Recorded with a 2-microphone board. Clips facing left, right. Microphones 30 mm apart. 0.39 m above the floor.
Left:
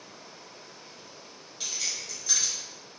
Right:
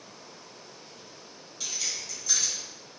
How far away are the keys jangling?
About 1.4 m.